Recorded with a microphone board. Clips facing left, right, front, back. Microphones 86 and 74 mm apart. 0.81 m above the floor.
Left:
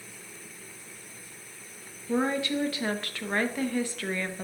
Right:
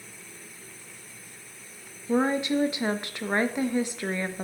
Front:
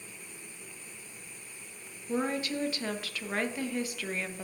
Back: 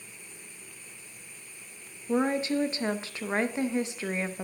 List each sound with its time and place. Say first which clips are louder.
2.1 s a woman speaking: right 3 dB, back 5 dB; 140° right, 0.9 m